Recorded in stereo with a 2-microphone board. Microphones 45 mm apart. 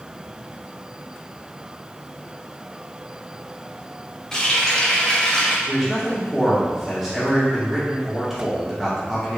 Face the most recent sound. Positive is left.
turn(degrees=0)  # may be behind; listen again after turning